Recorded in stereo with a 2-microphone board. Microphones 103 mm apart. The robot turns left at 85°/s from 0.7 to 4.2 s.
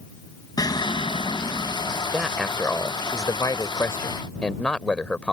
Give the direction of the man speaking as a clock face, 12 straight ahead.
6 o'clock.